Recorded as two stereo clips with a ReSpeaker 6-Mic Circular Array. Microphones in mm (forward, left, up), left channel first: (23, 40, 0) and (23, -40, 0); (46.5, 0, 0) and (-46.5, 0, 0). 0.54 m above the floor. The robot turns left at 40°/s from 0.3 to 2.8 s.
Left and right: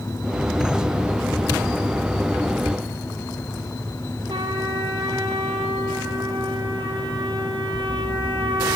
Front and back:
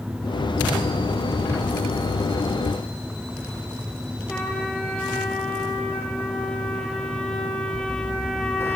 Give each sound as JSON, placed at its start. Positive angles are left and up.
{"t": 4.3, "sound": "a trumpet", "azimuth_deg": -85, "distance_m": 3.5}